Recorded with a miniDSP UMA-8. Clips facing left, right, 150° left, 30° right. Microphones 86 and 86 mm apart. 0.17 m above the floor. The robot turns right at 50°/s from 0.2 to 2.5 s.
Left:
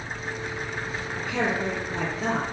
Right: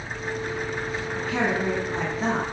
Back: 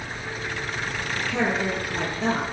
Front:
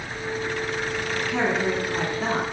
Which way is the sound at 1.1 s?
105° right.